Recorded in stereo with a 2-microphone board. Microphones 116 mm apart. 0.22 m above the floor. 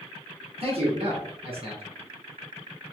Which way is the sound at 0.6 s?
60° right (ahead or behind).